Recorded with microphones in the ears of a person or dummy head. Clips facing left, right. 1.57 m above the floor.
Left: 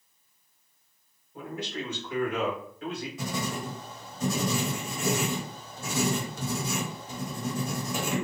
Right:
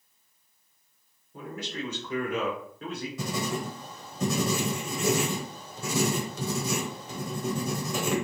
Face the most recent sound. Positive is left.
turn(degrees=-60)  # may be behind; listen again after turning